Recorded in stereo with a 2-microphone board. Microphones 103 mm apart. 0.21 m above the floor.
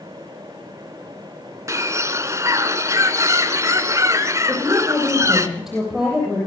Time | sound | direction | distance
1.7 | a bird | 30° right (ahead or behind) | 1.2 m
4.5 | a woman speaking | centre (ahead or behind) | 8 m